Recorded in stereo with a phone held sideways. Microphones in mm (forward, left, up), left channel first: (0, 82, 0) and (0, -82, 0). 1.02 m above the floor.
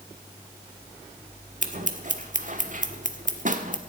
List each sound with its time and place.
1.6 s scissors: 50° right (ahead or behind), 1.5 m